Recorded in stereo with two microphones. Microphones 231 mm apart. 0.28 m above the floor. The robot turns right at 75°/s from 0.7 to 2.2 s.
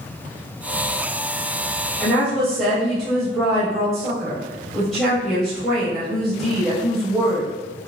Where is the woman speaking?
10° left (ahead or behind), 0.9 m; by 7.5 s centre (ahead or behind), 0.9 m.